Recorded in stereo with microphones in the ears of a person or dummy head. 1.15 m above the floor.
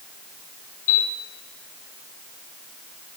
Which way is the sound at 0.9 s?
85° left.